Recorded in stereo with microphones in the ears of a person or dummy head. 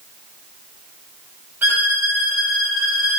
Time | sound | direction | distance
1.6 | a violin | 10° right (ahead or behind) | 0.7 m